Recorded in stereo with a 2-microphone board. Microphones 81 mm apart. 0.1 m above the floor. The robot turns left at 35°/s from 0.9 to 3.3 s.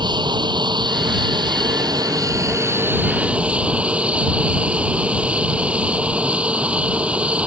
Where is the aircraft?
80° right; by 7.5 s 165° right.